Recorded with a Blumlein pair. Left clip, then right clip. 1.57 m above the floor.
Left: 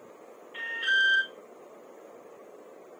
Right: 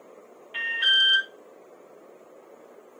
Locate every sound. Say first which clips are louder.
0.5 s an alarm: right 5 dB; 35° right, 1.9 m